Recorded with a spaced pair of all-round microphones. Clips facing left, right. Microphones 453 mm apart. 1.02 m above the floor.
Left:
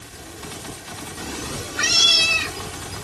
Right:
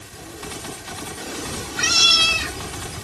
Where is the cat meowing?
25° left (ahead or behind); by 3.1 s 40° right (ahead or behind).